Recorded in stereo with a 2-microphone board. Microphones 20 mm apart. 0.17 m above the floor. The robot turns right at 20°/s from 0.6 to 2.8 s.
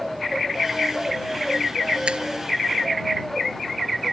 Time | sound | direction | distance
2.1 | a finger snap | 70° right (ahead or behind) | ?